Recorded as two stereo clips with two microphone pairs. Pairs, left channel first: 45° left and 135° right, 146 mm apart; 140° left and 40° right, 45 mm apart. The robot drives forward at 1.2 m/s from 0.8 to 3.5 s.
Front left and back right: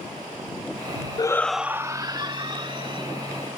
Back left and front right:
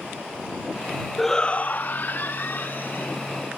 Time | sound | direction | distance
1.2 | a shout | 50° left | ?